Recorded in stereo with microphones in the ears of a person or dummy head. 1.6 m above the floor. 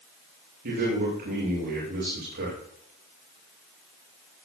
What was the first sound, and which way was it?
A man speaking, 55° right (ahead or behind).